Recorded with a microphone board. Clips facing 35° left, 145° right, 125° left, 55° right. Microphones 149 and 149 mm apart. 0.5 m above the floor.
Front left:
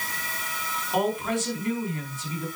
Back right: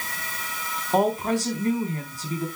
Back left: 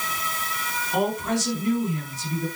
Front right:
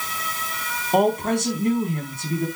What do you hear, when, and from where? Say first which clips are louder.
0.9 s a woman speaking: back right 4 dB, front right 5 dB; 90° right, 4.5 m